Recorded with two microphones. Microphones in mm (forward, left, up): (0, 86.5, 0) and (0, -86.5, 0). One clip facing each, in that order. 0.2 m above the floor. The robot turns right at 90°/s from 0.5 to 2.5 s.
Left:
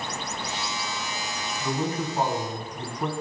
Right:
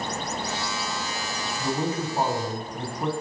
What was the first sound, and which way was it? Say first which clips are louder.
A man speaking: right 1 dB; 95° right.